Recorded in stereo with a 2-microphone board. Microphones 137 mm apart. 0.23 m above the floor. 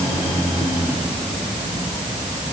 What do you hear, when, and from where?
Only background noise.